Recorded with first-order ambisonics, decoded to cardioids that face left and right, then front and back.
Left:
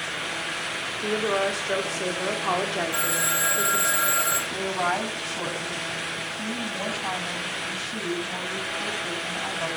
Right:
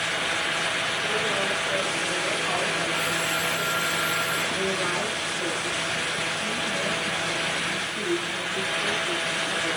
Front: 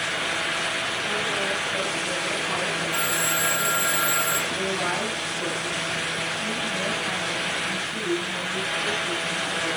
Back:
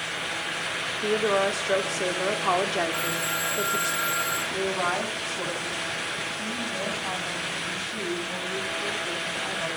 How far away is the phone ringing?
About 3.5 m.